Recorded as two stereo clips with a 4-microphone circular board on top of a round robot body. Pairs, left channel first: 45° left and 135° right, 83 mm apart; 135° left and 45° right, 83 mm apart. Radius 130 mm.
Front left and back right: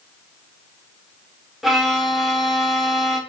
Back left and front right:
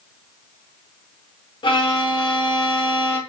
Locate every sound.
1.6 s a violin: 135° left, 0.7 m